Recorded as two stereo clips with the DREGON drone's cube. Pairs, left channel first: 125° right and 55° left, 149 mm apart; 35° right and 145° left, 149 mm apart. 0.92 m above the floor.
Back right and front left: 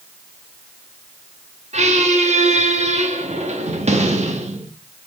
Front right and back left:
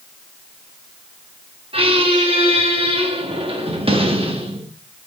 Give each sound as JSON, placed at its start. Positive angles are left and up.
{"t": 1.7, "sound": "a squeak", "azimuth_deg": 95, "distance_m": 0.9}